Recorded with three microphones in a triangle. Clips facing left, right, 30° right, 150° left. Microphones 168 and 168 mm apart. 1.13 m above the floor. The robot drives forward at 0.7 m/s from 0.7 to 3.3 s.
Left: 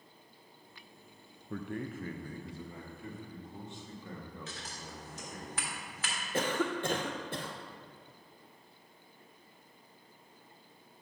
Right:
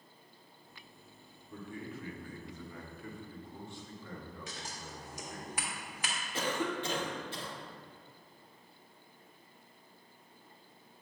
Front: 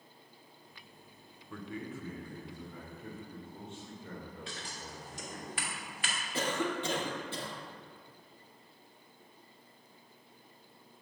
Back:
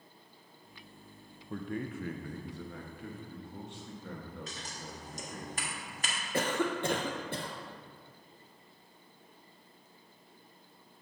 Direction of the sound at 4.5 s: 165° right.